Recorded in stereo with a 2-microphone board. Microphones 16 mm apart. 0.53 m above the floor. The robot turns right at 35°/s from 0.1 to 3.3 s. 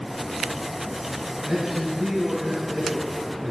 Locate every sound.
1.5 s a man speaking: 115° right, 2.5 m; by 3.5 s 50° right, 2.5 m